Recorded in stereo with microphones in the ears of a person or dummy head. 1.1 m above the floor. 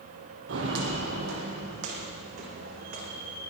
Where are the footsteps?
65° right (ahead or behind), 2.5 m.